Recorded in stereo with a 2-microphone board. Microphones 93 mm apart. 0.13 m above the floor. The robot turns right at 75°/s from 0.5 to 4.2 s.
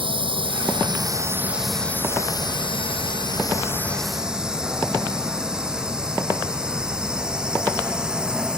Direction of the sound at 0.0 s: 75° right (ahead or behind).